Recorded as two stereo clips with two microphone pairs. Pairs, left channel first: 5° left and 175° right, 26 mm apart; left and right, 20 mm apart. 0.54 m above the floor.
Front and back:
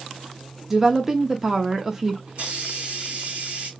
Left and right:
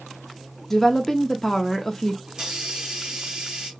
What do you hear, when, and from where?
0.7 s a woman speaking: 125° left, 0.9 m
2.3 s a hiss: 135° right, 2.5 m